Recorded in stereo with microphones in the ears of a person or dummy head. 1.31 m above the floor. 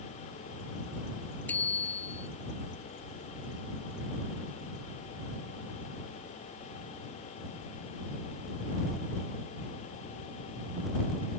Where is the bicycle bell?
10° left (ahead or behind).